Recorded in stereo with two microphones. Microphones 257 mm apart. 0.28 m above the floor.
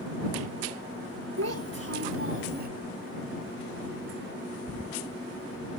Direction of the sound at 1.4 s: 70° right (ahead or behind).